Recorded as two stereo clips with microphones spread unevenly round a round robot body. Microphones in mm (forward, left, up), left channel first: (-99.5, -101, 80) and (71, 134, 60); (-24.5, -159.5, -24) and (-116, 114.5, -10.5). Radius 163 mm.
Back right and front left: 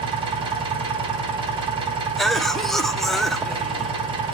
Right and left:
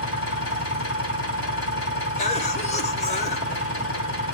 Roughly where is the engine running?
Ahead.